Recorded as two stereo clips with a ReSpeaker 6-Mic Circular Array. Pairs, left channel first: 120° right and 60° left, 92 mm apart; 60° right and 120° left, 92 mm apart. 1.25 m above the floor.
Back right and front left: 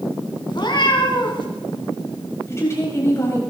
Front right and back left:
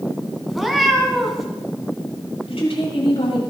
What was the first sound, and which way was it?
A cat meowing, 150° right.